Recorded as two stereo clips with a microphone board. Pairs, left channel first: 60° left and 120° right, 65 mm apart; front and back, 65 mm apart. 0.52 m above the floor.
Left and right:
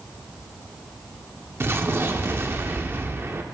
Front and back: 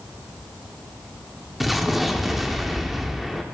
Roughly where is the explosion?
Right.